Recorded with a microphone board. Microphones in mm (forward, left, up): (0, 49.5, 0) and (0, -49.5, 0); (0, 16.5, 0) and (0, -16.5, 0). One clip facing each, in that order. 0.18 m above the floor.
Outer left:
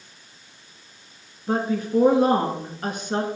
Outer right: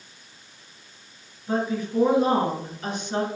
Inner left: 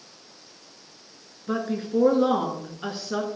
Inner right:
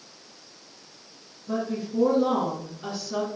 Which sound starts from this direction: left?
A woman speaking, at 1.5 s.